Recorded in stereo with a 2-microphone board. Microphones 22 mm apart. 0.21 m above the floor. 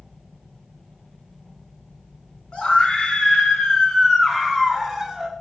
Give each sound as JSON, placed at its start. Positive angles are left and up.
{"t": 2.5, "sound": "a scream", "side_deg": 55, "distance_m": 1.8}